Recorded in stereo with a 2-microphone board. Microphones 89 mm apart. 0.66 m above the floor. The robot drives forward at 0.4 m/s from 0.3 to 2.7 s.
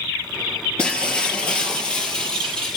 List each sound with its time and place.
0.8 s breaking glass: 10° left (ahead or behind), 2.5 m; by 2.8 s 5° left (ahead or behind), 3 m